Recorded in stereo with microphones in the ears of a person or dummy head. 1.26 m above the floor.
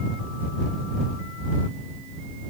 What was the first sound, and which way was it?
Only background noise.